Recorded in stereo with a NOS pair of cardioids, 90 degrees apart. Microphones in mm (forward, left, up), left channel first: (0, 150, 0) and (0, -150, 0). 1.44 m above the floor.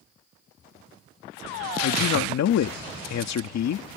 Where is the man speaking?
65° left.